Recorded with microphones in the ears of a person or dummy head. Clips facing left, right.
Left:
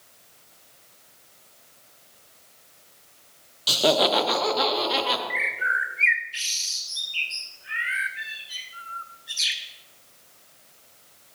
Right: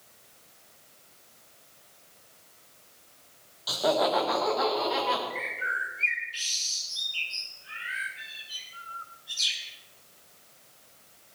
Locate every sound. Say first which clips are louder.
3.7 s laughter: left 4 dB; 40° left (ahead or behind), 1.1 m; by 5.2 s 45° left (ahead or behind), 3.5 m
5.3 s a bird: left 3 dB; 25° left (ahead or behind), 1.2 m